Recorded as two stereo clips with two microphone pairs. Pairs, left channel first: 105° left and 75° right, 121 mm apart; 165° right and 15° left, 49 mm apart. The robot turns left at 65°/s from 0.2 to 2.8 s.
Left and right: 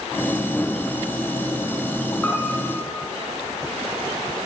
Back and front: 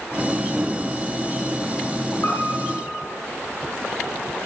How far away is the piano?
About 4 m.